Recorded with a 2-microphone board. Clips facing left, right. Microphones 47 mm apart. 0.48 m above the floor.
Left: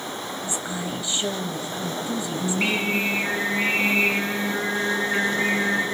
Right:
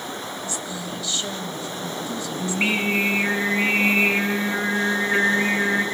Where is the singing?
20° right (ahead or behind), 3 m.